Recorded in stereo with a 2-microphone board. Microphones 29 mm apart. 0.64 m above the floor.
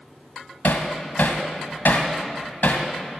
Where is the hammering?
80° left, 1.4 m.